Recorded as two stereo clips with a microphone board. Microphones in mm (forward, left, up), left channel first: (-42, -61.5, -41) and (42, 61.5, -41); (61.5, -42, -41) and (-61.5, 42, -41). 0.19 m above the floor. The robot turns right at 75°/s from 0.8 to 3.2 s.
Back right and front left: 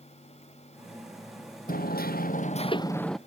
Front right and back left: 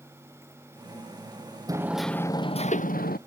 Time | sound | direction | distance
1.7 | hammering | 150° right | ?